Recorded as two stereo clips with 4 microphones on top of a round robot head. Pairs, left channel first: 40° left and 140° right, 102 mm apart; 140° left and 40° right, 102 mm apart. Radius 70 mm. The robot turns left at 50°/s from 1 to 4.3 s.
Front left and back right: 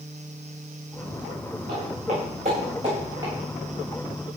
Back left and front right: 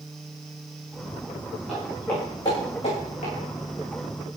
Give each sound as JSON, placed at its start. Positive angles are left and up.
{"t": 1.7, "sound": "footsteps", "azimuth_deg": -130, "distance_m": 8.5}